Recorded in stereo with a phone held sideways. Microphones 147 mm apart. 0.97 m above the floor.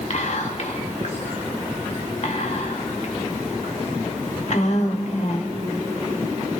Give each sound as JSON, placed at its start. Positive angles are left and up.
{"t": 0.1, "sound": "whispering", "side_deg": 55, "distance_m": 2.0}